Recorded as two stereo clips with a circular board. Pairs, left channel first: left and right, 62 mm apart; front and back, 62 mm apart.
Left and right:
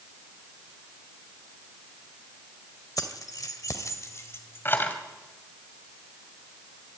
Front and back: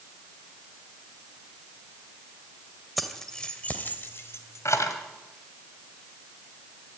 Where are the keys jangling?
90° left, 2 m; by 5.0 s 30° left, 3 m.